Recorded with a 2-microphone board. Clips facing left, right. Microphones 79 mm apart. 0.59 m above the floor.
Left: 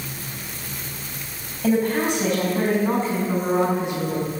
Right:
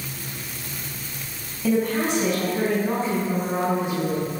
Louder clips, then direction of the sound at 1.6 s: Left 2 dB; 75° left (ahead or behind).